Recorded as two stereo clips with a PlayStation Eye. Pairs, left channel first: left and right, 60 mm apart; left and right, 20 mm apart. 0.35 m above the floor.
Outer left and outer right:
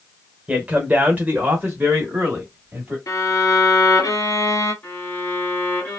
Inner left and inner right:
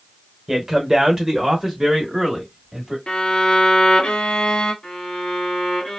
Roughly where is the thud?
I don't hear a thud.